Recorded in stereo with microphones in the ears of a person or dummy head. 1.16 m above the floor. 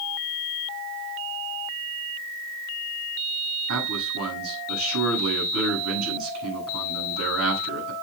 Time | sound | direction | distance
3.7 | a man speaking | 80° right | 9.5 m